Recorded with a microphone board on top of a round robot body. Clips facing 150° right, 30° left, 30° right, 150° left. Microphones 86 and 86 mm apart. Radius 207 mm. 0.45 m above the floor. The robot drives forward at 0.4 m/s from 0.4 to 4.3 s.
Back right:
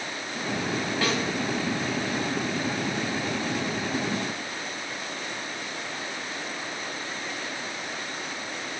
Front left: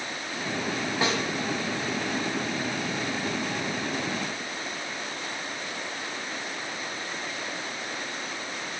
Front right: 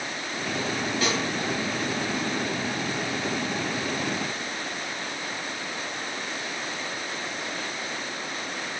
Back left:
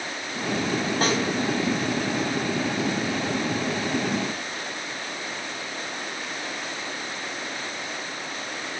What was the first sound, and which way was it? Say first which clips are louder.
A snare drum: front left 1 dB, back left 3 dB; 100° left.